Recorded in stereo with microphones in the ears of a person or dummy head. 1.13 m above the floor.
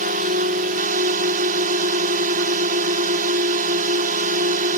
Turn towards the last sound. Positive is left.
turn(degrees=-40)  # may be behind; listen again after turning